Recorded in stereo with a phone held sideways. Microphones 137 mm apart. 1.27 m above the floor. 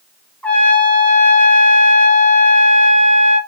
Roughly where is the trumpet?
Centre.